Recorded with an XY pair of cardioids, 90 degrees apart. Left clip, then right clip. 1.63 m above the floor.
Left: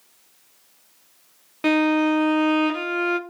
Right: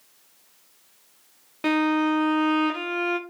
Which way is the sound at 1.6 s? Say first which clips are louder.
Left 3 dB; 15° left.